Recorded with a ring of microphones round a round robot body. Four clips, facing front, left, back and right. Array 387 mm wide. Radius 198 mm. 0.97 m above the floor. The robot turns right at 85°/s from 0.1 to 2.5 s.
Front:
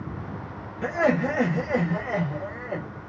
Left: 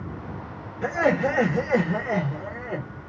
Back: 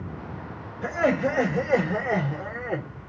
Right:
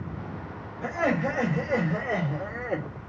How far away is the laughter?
About 1.1 m.